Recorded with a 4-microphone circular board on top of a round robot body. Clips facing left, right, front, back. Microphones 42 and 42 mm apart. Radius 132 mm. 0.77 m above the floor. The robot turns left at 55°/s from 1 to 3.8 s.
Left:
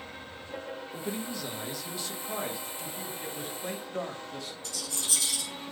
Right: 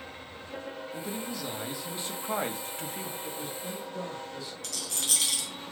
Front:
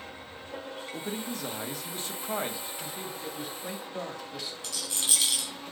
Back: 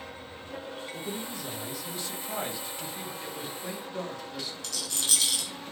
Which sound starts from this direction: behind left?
A man speaking, at 3.2 s.